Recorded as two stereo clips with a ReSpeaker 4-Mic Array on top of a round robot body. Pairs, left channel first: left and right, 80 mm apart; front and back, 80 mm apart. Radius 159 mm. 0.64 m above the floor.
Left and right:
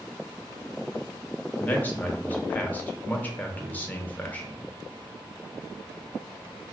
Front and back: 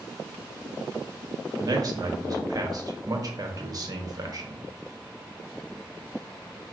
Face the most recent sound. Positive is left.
turn(degrees=155)